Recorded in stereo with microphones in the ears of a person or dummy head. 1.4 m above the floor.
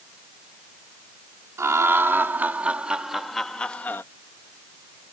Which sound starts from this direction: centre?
Laughter, at 1.6 s.